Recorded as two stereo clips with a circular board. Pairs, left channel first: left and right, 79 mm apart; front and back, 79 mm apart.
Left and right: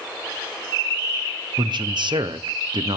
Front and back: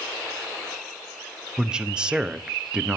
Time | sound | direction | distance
1.6 | a man speaking | 100° right | 0.7 m